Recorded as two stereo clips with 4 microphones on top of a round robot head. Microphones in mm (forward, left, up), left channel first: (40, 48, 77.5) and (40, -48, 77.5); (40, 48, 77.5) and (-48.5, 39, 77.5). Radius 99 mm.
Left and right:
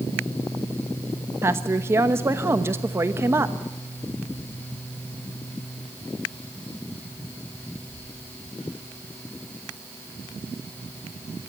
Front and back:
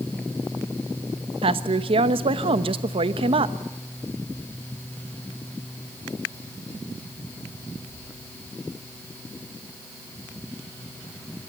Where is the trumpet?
I don't hear a trumpet.